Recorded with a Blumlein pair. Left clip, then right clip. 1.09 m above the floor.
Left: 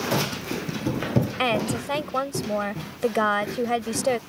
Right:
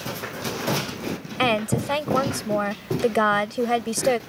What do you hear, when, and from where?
1.4 s a woman speaking: 5° right